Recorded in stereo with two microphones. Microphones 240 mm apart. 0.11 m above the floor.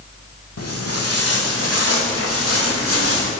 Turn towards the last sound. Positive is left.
turn(degrees=85)